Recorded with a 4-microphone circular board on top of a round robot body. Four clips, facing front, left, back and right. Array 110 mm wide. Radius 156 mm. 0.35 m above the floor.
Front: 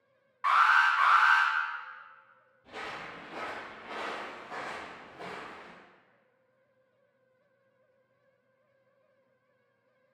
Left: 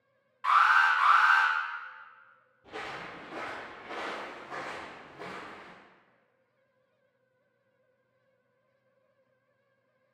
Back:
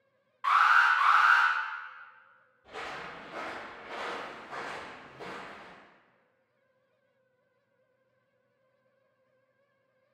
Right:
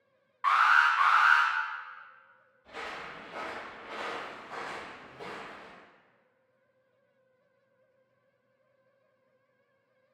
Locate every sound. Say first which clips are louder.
0.4 s an alarm: even, back 1 dB; 45° right, 1.6 m
2.6 s footsteps: left 1 dB, back 1 dB; 85° left, 0.5 m; by 5.7 s 45° left, 2.0 m